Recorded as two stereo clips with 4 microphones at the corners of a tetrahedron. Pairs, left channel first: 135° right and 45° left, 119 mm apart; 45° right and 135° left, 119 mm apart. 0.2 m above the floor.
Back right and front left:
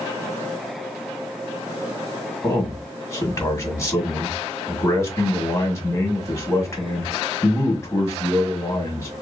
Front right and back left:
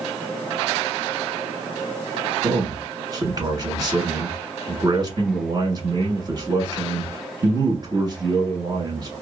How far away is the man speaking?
About 1.4 m.